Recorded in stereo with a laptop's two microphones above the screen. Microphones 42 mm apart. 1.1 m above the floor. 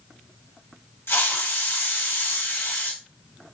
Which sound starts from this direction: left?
A hiss, at 1.1 s.